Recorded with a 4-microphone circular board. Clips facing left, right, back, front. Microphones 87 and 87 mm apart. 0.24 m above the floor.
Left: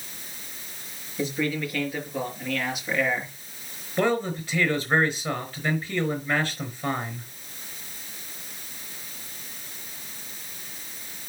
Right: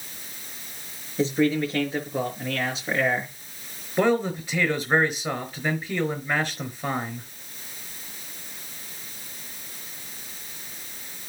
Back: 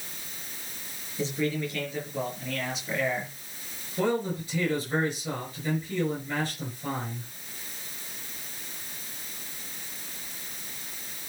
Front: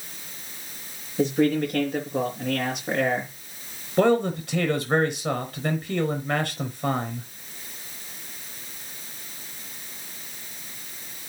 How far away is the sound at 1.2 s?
About 4.5 m.